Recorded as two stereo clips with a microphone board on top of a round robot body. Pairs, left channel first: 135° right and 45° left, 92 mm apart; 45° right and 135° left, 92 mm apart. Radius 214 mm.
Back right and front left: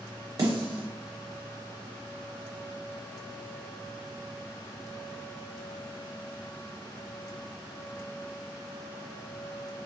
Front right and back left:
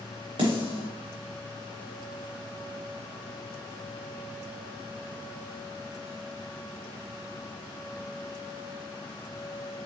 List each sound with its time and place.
0.4 s a snare drum: 95° left, 0.6 m